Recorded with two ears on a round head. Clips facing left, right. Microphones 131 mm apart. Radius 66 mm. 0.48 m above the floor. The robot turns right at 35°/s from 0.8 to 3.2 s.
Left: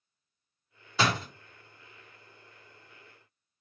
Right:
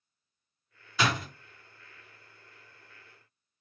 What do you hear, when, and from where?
1.0 s a door slam: 30° left (ahead or behind), 0.7 m; by 1.3 s 25° left (ahead or behind), 0.7 m